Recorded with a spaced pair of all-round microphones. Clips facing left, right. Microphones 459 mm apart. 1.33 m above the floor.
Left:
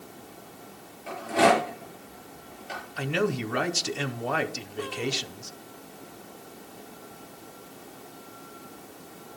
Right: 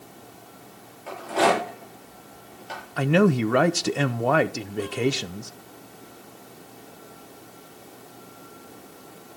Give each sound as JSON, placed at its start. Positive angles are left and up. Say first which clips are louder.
{"t": 1.1, "sound": "a rattle", "louder": "even", "side_deg": 40, "distance_m": 6.5}
{"t": 3.0, "sound": "a man speaking", "louder": "right 8 dB", "side_deg": -70, "distance_m": 0.7}